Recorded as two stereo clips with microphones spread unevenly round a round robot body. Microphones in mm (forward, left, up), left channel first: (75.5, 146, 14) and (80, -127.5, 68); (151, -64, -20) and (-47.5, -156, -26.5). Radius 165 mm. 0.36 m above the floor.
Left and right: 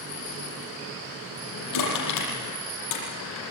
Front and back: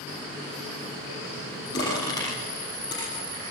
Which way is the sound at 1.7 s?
105° left.